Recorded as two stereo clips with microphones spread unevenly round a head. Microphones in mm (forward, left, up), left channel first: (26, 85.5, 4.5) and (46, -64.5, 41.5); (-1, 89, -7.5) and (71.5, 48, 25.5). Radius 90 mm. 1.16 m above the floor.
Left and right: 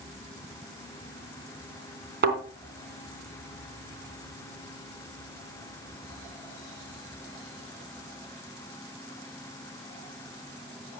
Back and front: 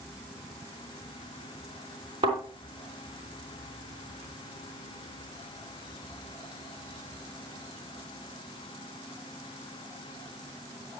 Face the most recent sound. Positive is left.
turn(degrees=-70)